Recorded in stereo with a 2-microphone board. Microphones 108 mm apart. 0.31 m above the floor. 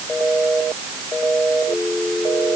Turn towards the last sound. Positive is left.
No sound to turn to.